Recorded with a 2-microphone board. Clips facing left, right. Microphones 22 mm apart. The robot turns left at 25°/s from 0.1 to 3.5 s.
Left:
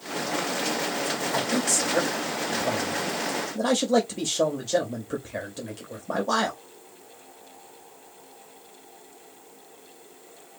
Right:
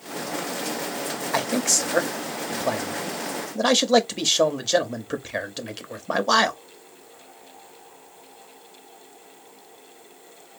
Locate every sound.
1.3 s a man speaking: 50° right (ahead or behind), 1.1 m; by 6.6 s 55° right (ahead or behind), 1.1 m